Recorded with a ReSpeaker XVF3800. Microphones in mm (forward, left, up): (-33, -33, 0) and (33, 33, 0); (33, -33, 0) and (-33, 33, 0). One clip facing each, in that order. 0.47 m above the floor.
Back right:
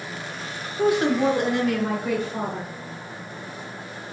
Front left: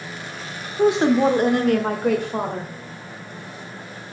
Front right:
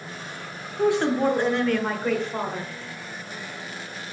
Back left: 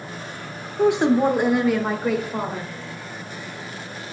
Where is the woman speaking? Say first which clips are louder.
Front left 4 dB, back left 4 dB; 95° left, 0.7 m; by 2.7 s 50° left, 1.6 m.